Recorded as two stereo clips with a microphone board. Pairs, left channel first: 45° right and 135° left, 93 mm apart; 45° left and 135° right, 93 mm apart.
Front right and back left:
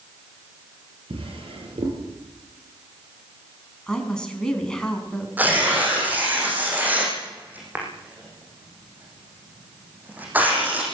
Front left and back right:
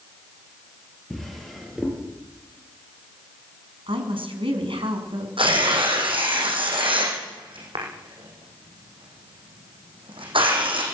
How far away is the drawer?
About 7.5 m.